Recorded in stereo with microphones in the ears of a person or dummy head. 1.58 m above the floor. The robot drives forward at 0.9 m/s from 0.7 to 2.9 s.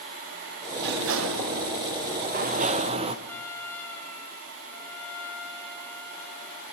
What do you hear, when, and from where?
0.8 s a sliding door: 55° right (ahead or behind), 1.2 m; by 3.1 s 35° right (ahead or behind), 1.6 m
3.2 s a trumpet: 10° left (ahead or behind), 5 m